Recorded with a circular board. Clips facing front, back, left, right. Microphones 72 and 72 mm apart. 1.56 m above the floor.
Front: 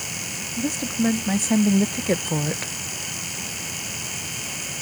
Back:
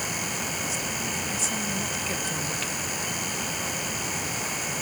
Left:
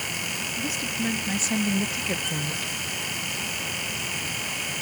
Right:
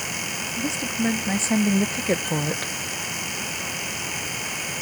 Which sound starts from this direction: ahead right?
A woman speaking, at 0.6 s.